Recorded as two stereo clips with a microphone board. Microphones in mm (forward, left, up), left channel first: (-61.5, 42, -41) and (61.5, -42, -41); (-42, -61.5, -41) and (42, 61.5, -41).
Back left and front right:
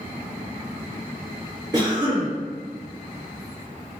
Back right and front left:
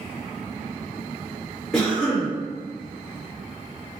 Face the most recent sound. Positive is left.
turn(degrees=-45)